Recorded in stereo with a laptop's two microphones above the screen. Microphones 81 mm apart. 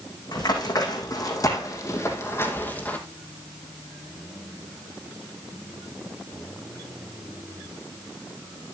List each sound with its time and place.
0.3 s running footsteps: 60° left (ahead or behind), 4 m; by 3.0 s 20° left (ahead or behind), 2.5 m